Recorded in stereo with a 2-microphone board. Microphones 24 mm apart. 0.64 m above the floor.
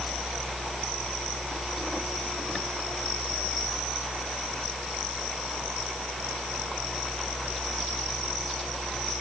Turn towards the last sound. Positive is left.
No sound to turn to.